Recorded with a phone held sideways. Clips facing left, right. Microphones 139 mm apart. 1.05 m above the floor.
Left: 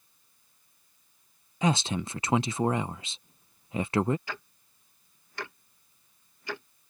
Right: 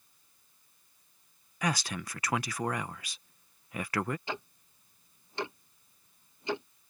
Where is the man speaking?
25° left (ahead or behind).